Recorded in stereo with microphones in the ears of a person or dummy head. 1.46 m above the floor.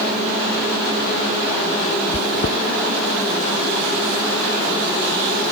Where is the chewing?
40° left (ahead or behind).